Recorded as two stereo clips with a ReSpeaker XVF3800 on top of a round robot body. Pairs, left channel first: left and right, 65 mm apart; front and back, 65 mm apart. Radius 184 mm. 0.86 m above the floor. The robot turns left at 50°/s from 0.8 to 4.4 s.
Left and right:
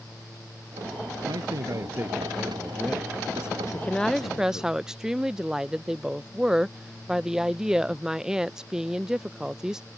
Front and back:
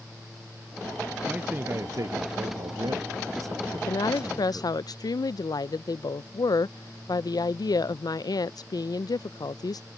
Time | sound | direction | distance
1.3 | a man speaking | 110° right | ?
3.7 | a woman speaking | 25° left | ?